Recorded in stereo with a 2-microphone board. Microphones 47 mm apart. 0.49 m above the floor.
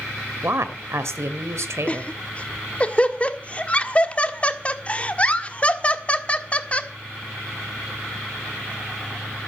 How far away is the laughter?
About 1.4 m.